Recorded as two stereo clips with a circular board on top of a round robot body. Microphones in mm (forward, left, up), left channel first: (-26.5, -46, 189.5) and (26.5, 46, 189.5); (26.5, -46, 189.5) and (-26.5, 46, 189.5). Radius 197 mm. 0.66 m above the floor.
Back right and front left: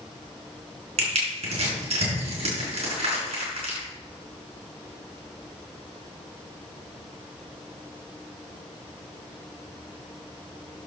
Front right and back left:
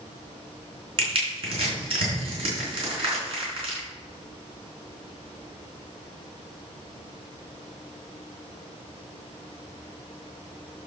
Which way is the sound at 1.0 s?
80° left.